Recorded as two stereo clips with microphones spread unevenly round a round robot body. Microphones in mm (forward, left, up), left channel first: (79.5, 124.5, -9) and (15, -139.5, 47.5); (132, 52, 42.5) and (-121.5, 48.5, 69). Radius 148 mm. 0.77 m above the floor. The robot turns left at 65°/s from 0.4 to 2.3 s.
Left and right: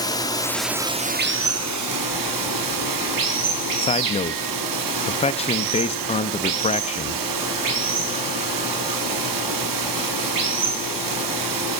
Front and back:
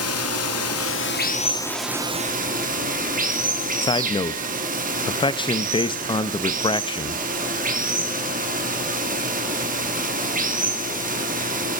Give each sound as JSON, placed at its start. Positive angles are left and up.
{"t": 0.0, "sound": "running water", "azimuth_deg": 5, "distance_m": 1.4}
{"t": 3.8, "sound": "a man speaking", "azimuth_deg": 50, "distance_m": 1.0}